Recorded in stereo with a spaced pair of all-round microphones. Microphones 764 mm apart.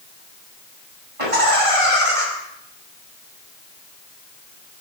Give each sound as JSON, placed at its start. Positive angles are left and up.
{"t": 1.2, "sound": "laughter", "side_deg": -45, "distance_m": 8.5}